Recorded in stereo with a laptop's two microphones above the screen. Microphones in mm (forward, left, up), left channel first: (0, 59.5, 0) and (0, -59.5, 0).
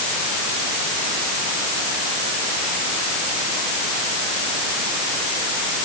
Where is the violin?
I don't hear a violin.